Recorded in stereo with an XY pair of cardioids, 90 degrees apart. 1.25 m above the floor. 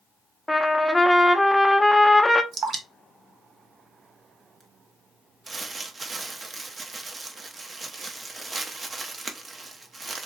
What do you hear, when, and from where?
0.5 s a trumpet: 15° left, 0.5 m
2.5 s dripping: 50° right, 1.1 m
5.5 s crumpling: 35° right, 0.7 m